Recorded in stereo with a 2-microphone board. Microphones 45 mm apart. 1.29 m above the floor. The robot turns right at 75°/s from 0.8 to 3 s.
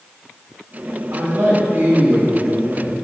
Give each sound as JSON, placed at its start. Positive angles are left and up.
{"t": 1.1, "sound": "a man speaking", "azimuth_deg": -100, "distance_m": 1.7}